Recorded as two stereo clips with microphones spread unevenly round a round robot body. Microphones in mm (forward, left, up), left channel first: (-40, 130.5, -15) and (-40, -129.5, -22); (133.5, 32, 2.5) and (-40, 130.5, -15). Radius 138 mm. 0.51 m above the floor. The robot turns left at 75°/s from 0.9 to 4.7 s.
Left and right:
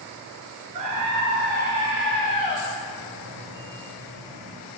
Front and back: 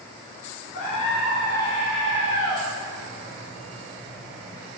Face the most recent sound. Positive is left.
turn(degrees=-20)